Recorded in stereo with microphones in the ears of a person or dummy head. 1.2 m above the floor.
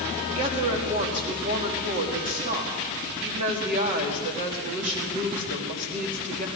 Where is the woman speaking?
35° right (ahead or behind), 2 m.